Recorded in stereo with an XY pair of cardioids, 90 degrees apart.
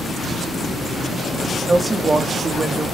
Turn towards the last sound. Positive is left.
turn(degrees=-30)